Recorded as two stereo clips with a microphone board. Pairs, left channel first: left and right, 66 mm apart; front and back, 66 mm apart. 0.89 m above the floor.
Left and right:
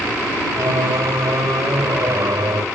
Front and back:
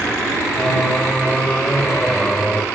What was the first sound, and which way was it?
Singing, 80° right.